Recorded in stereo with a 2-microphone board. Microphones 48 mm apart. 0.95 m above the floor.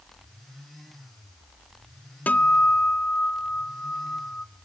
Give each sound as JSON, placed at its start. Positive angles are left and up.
{"t": 2.3, "sound": "a guitar", "side_deg": 35, "distance_m": 0.5}